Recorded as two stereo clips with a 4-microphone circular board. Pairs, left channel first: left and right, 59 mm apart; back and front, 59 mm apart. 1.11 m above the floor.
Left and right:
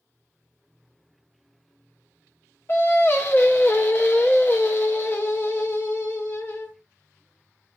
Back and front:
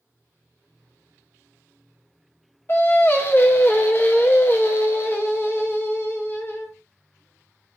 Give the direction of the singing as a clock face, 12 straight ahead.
8 o'clock.